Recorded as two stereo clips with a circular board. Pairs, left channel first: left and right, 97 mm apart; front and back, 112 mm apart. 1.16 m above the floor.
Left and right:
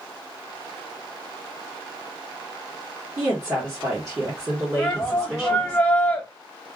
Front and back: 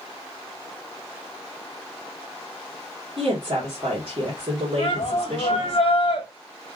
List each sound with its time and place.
3.2 s a woman speaking: 155° right, 1.5 m
4.8 s a shout: 15° left, 1.0 m